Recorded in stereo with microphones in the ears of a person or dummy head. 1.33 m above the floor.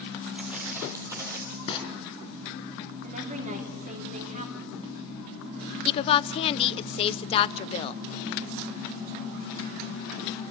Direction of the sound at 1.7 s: 30° left (ahead or behind).